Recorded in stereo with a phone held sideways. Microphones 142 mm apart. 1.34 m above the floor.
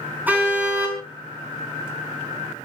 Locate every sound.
0.3 s a car horn: 10° right (ahead or behind), 7 m